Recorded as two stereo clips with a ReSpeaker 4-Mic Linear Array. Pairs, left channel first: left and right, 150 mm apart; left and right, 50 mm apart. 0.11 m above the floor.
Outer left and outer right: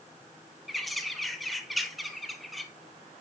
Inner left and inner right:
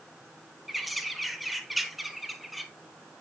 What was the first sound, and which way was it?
A bird, centre (ahead or behind).